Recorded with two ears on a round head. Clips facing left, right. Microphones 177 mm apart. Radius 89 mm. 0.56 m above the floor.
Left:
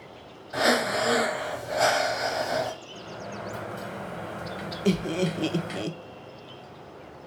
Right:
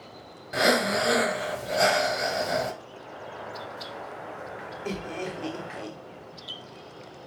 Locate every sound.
0.5 s breathing: 25° right (ahead or behind), 1.3 m
2.9 s a sliding door: 50° left (ahead or behind), 0.9 m
4.8 s laughter: 45° left (ahead or behind), 0.9 m